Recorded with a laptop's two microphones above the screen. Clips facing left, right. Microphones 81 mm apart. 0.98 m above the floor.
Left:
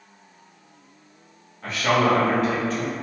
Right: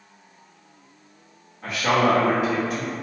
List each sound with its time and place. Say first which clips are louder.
1.6 s a man speaking: even; 5° right (ahead or behind), 0.8 m